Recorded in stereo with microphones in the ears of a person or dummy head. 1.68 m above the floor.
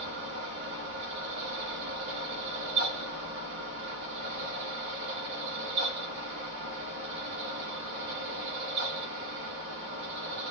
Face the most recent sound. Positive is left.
turn(degrees=-65)  # may be behind; listen again after turning